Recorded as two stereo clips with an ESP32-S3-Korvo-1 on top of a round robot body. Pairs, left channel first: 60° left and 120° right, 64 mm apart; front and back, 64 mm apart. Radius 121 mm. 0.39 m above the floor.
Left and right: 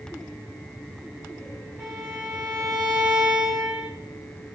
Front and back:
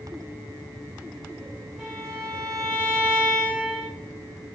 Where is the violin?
115° right, 1.7 m.